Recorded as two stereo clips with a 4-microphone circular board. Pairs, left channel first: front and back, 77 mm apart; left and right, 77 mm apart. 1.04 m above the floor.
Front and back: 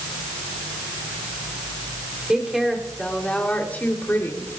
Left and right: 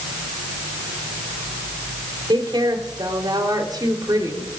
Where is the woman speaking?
100° right, 4 m; by 4.5 s 55° right, 4 m.